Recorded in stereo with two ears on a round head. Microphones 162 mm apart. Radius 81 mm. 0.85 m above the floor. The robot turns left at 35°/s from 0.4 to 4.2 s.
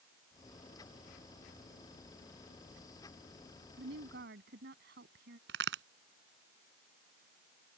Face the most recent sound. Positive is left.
turn(degrees=-75)  # may be behind; listen again after turning